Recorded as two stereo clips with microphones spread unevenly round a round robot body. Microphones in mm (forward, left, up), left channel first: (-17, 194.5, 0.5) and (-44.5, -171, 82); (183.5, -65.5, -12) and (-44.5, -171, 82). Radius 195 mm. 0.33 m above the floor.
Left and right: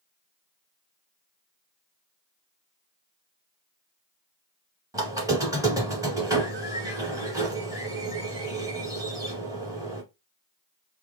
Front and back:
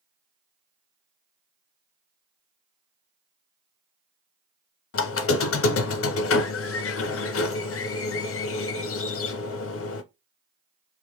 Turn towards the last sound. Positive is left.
turn(degrees=-10)